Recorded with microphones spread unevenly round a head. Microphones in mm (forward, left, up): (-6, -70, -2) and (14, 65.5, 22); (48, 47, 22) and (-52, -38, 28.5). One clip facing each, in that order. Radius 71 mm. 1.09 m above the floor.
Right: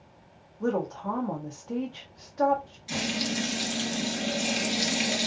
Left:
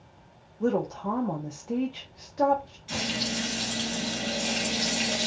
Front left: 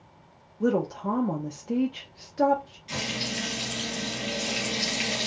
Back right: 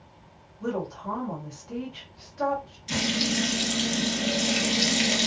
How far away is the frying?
About 2.5 m.